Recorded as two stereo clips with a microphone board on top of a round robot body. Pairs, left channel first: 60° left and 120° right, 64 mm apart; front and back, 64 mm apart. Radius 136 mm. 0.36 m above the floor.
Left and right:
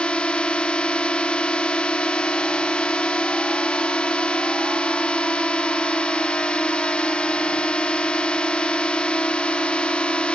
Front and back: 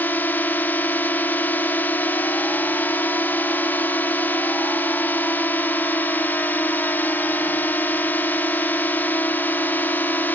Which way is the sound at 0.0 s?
5° left.